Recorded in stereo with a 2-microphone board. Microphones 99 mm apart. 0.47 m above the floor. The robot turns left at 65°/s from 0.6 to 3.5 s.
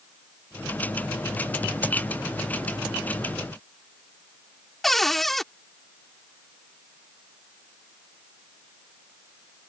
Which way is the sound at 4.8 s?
Centre (ahead or behind).